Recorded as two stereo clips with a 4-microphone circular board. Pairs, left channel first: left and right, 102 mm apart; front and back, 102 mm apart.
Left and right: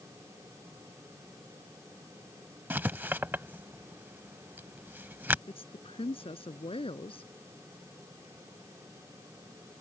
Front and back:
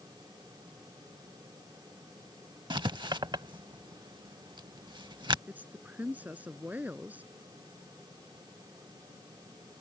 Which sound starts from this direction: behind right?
Writing, at 2.7 s.